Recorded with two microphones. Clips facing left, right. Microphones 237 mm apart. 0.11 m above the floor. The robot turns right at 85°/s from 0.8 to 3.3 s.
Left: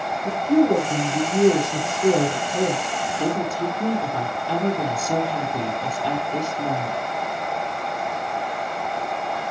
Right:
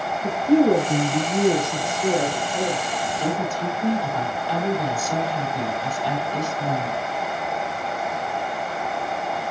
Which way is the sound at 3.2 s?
55° left (ahead or behind).